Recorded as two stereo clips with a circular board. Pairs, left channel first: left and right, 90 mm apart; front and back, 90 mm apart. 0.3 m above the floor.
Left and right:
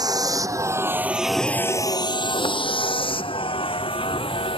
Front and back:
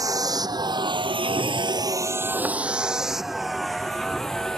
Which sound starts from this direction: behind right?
A vehicle, at 0.0 s.